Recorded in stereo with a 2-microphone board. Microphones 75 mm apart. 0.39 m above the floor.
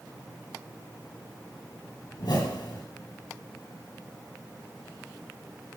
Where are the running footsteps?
I don't hear running footsteps.